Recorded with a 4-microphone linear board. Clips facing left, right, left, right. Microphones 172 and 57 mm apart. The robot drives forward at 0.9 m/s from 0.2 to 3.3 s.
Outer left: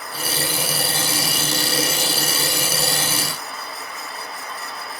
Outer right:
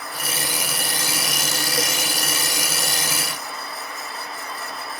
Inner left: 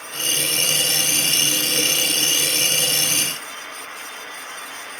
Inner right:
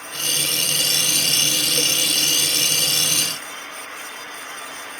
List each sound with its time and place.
Only background noise.